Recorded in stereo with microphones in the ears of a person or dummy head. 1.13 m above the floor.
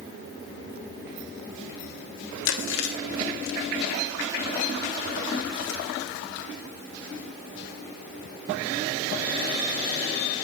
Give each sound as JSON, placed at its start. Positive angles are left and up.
{"t": 2.5, "sound": "chewing", "side_deg": 60, "distance_m": 1.2}